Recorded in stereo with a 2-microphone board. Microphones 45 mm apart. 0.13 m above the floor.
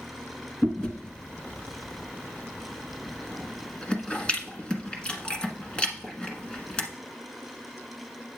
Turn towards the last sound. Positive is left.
turn(degrees=25)  # may be behind; listen again after turning